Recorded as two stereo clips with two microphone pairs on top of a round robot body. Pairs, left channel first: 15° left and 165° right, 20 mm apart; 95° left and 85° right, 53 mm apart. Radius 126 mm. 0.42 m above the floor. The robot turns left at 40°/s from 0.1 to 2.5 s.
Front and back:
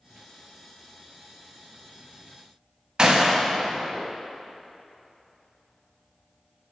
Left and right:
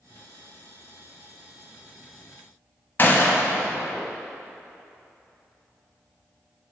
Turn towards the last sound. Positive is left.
turn(degrees=145)